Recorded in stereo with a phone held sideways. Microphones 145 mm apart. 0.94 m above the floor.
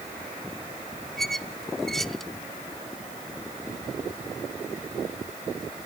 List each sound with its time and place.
1.2 s a squeak: centre (ahead or behind), 0.7 m